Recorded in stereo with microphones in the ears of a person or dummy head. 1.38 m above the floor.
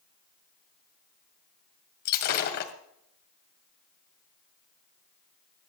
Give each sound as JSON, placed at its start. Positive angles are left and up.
{"t": 2.0, "sound": "breaking glass", "side_deg": 50, "distance_m": 1.9}